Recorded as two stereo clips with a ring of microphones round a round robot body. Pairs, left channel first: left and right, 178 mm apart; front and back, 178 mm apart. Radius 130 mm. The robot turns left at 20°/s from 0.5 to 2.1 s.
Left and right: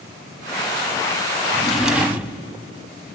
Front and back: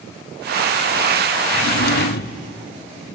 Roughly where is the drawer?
Ahead.